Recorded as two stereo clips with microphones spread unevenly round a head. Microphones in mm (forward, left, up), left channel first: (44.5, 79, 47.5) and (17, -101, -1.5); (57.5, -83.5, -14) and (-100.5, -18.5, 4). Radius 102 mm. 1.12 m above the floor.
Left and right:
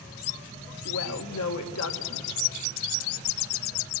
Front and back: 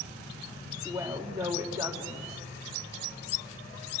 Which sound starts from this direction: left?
A woman speaking, at 0.8 s.